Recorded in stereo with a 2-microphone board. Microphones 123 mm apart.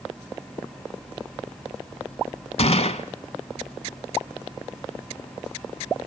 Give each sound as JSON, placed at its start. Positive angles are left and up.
{"t": 2.6, "sound": "a gunshot", "side_deg": 55, "distance_m": 1.0}